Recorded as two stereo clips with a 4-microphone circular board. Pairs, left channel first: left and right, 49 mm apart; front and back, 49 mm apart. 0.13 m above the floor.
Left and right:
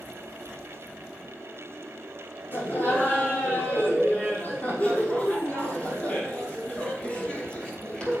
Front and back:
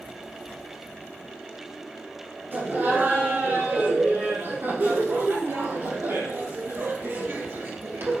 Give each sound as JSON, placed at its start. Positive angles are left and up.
{"t": 2.5, "sound": "laughter", "azimuth_deg": 135, "distance_m": 6.0}